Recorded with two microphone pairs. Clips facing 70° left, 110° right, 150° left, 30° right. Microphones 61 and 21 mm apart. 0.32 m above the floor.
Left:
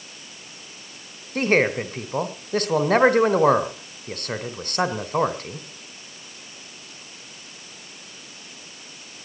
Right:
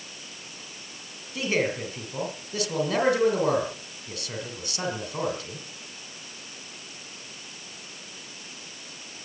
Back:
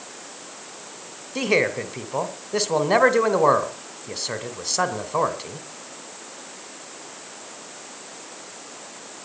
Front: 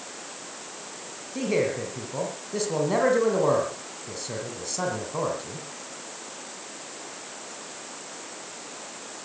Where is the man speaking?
105° left, 2.5 m.